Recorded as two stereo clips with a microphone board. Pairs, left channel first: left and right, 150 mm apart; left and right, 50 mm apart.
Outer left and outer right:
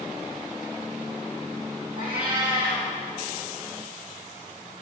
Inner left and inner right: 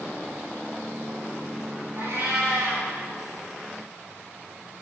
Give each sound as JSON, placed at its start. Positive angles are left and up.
{"t": 2.0, "sound": "a cat meowing", "side_deg": -70, "distance_m": 3.5}